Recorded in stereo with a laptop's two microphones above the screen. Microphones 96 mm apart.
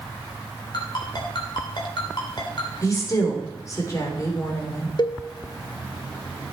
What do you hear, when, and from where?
0.7 s a ringtone: 50° left (ahead or behind), 3 m
2.8 s a woman speaking: 35° left (ahead or behind), 3 m
5.0 s a cowbell: 50° left (ahead or behind), 0.8 m